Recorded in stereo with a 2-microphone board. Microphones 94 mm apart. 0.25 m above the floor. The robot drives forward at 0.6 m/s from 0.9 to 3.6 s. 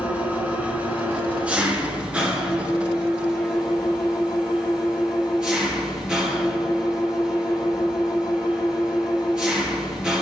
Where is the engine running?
15° right (ahead or behind), 2 m; by 10.2 s 10° right (ahead or behind), 3.5 m.